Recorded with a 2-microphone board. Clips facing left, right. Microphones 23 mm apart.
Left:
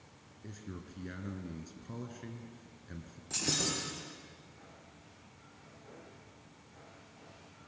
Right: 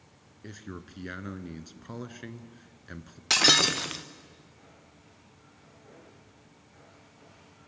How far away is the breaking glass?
About 1.7 m.